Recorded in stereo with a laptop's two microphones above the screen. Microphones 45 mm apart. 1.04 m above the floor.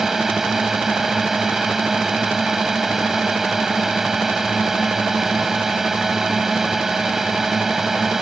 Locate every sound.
0.0 s a drone: 10° right (ahead or behind)